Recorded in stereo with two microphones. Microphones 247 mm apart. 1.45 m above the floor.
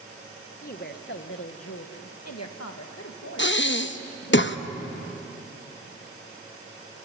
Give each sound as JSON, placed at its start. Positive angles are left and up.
{"t": 0.6, "sound": "a woman speaking", "side_deg": 35, "distance_m": 1.5}
{"t": 3.4, "sound": "breathing", "side_deg": 50, "distance_m": 0.9}